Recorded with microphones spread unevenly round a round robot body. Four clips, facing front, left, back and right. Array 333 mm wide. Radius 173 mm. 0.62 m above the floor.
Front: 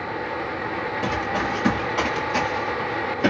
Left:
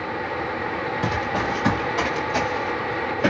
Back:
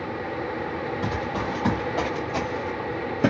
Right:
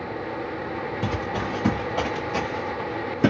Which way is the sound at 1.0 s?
100° right.